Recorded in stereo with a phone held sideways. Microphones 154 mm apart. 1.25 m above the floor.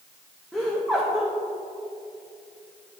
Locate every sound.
0.5 s laughter: centre (ahead or behind), 1.0 m